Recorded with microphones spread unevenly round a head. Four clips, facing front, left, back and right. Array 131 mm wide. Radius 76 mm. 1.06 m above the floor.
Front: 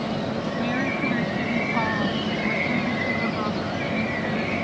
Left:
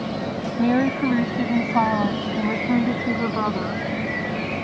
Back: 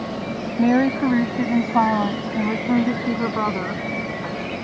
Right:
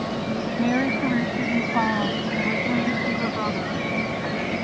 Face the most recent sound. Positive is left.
turn(degrees=150)